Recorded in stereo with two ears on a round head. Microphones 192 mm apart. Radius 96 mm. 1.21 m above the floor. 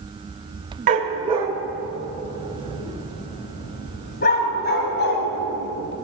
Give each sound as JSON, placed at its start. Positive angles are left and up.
{"t": 0.9, "sound": "a dog barking", "side_deg": -35, "distance_m": 1.5}